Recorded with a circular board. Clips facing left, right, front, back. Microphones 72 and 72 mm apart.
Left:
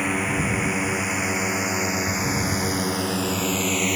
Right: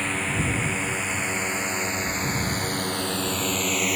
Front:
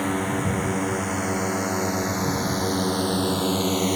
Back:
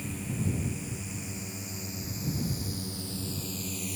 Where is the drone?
10° left; by 4.0 s straight ahead.